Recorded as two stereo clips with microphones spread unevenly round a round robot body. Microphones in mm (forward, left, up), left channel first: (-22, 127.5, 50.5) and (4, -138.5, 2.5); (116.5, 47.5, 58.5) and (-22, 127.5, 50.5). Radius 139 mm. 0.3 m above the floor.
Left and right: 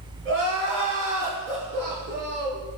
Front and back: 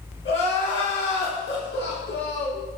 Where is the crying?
40° right, 5 m.